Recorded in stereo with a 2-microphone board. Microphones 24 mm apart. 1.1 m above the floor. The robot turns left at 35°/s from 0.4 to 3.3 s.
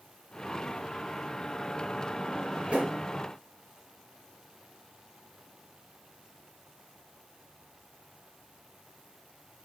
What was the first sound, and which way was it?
A drawer, 35° right (ahead or behind).